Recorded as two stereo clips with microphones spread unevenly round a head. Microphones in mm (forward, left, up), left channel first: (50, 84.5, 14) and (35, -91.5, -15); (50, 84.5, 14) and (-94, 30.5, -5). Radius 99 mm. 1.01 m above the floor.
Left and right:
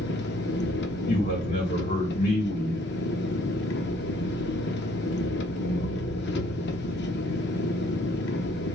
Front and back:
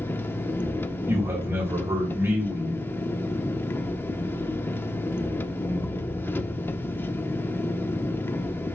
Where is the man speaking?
130° left, 3 m.